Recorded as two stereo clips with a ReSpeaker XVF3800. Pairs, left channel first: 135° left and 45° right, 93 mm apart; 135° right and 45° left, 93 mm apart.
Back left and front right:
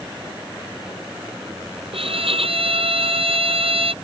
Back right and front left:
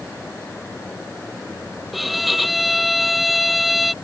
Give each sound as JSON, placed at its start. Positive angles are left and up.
{"t": 1.9, "sound": "a violin", "azimuth_deg": -45}